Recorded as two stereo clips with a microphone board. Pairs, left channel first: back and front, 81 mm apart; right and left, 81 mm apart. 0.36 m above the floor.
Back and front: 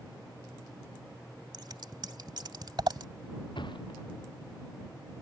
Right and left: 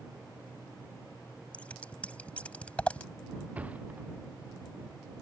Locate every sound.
1.5 s scissors: 20° right
3.5 s a thud: 160° left